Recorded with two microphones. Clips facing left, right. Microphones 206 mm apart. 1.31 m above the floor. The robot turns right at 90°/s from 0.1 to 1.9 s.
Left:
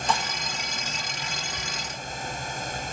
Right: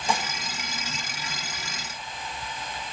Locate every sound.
0.1 s dishes clattering: 10° right (ahead or behind), 1.1 m; by 0.3 s 30° right (ahead or behind), 1.1 m